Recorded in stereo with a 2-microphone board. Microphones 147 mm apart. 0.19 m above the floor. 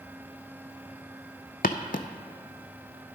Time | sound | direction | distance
1.6 | footsteps | 70° left (ahead or behind) | 0.5 m